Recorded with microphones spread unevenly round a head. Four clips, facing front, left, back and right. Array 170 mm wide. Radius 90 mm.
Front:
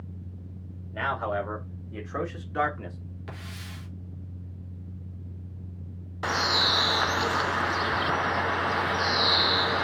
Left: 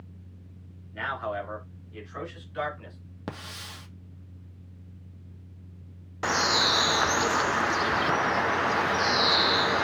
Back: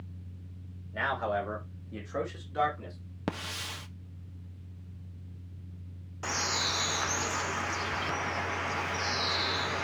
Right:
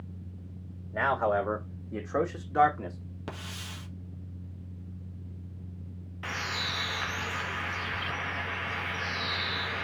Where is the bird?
65° left, 0.6 m.